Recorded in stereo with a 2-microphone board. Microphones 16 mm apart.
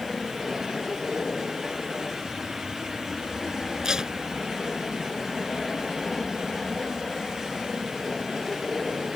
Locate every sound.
0.0 s an aircraft: 25° left (ahead or behind)
3.8 s tape being pulled: 45° right (ahead or behind)